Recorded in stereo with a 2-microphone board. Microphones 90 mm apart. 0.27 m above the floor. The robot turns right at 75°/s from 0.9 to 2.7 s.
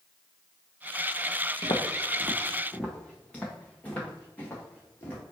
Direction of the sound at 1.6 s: 65° left (ahead or behind).